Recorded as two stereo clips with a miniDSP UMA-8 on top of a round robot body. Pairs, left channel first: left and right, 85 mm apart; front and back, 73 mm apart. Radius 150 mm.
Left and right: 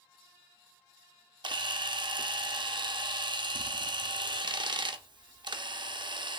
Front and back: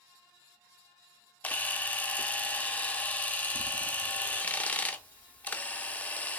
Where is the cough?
No cough in this recording.